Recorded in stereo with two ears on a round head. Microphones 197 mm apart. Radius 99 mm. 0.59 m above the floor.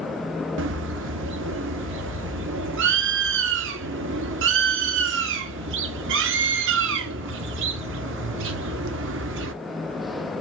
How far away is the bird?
About 0.6 m.